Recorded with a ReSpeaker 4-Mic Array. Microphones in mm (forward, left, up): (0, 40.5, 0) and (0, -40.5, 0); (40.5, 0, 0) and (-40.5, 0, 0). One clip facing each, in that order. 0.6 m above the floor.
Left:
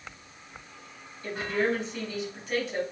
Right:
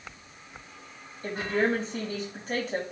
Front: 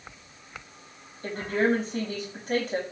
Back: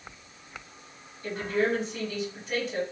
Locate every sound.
1.2 s a woman speaking: 40° right, 4 m